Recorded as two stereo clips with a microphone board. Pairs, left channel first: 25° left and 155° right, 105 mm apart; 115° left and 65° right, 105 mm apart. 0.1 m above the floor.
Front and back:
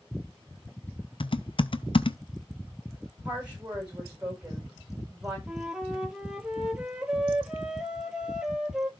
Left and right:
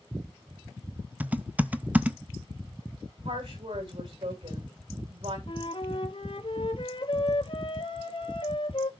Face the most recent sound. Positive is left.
turn(degrees=120)